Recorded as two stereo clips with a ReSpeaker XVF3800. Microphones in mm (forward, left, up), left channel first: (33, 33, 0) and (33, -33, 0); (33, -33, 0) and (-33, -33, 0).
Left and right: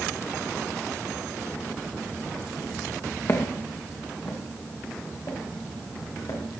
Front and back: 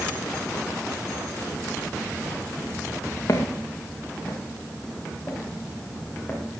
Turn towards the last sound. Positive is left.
turn(degrees=70)